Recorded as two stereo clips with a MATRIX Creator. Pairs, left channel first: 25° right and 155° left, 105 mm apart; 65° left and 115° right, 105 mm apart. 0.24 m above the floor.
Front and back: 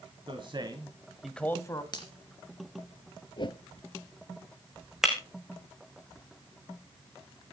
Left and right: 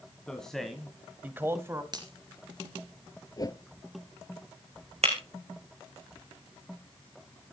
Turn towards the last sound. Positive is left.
turn(degrees=-120)